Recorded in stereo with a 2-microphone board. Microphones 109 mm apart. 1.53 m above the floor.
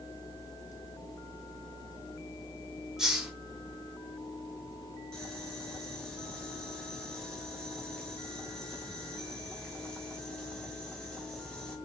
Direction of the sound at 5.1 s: 5° left (ahead or behind).